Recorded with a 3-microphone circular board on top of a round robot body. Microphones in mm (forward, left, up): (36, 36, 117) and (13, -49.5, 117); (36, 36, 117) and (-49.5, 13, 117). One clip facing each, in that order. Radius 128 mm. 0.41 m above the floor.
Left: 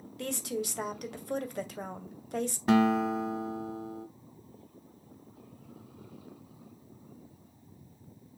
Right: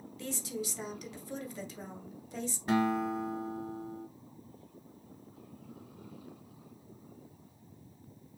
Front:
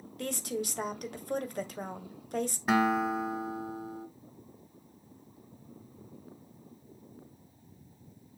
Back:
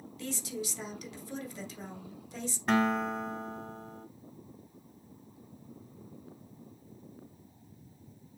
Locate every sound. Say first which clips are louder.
0.2 s a woman speaking: left 4 dB, front 4 dB; 50° left, 2 m
2.7 s a guitar: left 5 dB, front 1 dB; 100° left, 1.1 m